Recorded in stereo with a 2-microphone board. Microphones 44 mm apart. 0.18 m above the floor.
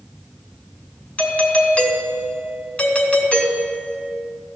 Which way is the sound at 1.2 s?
30° left (ahead or behind).